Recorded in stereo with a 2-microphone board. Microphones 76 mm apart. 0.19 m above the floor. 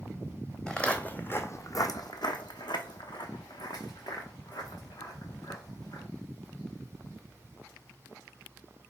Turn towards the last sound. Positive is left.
turn(degrees=55)  # may be behind; listen again after turning